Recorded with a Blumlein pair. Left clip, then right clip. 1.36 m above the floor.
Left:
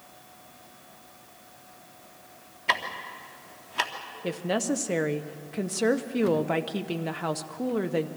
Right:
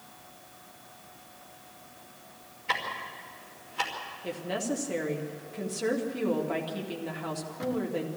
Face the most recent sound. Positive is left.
turn(degrees=25)